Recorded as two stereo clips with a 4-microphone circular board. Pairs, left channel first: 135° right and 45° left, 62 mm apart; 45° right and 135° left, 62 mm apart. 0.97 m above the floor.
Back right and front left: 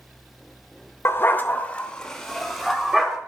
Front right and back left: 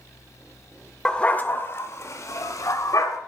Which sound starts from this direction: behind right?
A dog barking, at 1.1 s.